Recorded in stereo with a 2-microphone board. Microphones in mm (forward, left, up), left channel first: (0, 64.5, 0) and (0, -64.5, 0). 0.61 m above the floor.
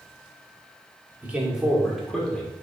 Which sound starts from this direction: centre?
A man speaking, at 1.2 s.